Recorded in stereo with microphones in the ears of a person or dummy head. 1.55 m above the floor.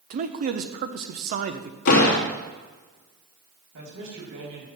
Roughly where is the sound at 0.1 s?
Right.